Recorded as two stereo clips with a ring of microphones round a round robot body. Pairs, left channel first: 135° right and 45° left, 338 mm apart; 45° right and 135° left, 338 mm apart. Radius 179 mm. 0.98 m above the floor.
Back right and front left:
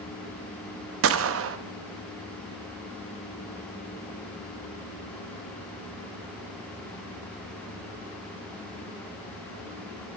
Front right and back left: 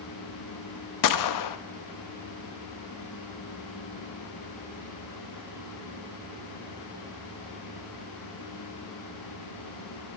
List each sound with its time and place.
1.0 s a gunshot: 10° right, 0.7 m